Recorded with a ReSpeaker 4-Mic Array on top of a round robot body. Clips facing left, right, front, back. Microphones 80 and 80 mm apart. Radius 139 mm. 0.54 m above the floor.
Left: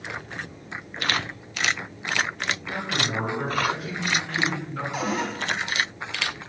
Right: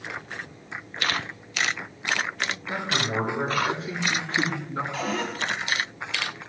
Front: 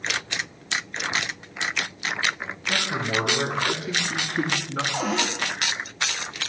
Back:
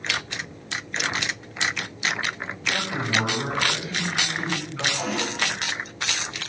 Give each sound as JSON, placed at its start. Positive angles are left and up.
{"t": 2.7, "sound": "a man speaking", "azimuth_deg": -30, "distance_m": 8.5}
{"t": 4.9, "sound": "a cupboard door", "azimuth_deg": 20, "distance_m": 4.5}